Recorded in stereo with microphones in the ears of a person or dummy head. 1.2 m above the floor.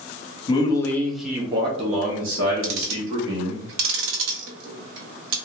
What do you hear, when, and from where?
0.5 s a man speaking: 25° left (ahead or behind), 0.8 m; by 3.6 s 65° right (ahead or behind), 1.4 m
2.6 s ticking: 70° right (ahead or behind), 0.6 m